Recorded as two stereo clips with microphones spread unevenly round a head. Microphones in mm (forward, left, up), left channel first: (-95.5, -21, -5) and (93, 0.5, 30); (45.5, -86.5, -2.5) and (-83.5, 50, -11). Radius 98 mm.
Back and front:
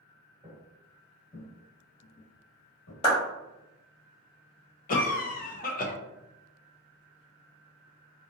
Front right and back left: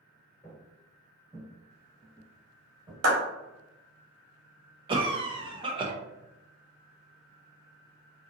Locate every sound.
0.4 s footsteps: straight ahead, 0.9 m; by 2.9 s 165° right, 1.6 m
3.0 s a clap: 120° left, 1.1 m
4.9 s a cough: 170° right, 0.6 m